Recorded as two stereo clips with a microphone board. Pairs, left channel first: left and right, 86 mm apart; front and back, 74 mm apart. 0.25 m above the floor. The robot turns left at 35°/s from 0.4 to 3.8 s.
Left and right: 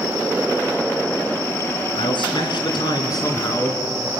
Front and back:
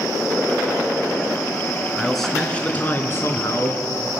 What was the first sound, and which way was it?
A man speaking, 95° left.